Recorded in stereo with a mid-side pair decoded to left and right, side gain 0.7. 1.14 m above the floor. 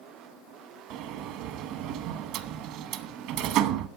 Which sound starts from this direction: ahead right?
A sliding door, at 0.9 s.